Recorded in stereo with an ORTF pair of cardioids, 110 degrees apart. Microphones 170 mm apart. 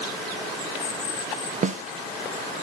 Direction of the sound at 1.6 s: 45° right.